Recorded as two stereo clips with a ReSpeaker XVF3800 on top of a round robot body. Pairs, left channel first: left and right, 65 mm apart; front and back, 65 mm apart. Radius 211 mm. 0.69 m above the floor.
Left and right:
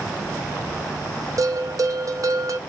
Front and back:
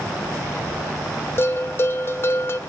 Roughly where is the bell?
Ahead right.